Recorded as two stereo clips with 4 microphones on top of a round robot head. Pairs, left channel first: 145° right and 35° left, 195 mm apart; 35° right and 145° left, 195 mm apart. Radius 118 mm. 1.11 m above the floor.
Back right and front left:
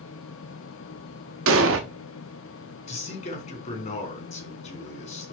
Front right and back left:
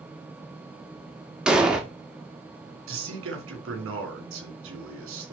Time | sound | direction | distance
1.5 | an explosion | 60° left | 1.1 m
2.9 | a man speaking | 160° left | 3 m